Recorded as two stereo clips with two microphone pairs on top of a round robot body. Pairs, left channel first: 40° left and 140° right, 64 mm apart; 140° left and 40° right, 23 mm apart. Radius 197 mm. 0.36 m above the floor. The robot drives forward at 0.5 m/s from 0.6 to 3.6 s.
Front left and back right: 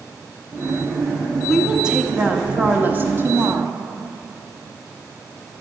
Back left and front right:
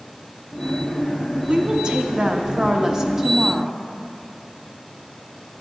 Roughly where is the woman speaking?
Ahead right.